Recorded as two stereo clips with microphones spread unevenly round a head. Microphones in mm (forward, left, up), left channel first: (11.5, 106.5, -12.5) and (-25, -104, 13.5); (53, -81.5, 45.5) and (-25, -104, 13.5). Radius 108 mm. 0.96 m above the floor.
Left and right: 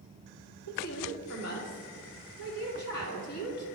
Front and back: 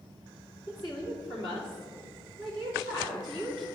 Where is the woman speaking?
90° left, 2.5 m.